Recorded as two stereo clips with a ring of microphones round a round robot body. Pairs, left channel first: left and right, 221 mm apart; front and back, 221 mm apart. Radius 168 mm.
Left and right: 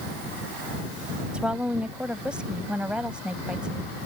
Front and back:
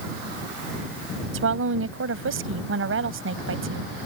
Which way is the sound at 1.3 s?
175° right.